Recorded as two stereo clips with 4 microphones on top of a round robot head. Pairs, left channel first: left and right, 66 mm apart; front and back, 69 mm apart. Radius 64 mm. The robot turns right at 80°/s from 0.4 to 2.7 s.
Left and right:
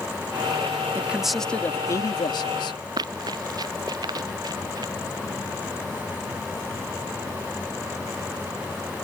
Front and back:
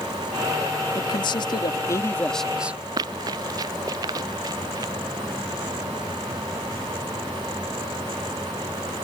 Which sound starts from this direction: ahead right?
A man speaking, at 0.9 s.